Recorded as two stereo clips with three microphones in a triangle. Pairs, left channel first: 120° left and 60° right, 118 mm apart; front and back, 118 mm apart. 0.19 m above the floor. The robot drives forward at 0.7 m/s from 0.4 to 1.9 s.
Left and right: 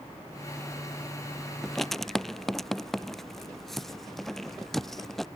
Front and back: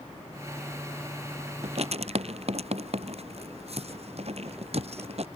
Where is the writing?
150° right.